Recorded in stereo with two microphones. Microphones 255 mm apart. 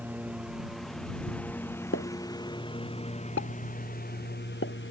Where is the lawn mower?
5° right (ahead or behind); by 4.9 s 50° left (ahead or behind).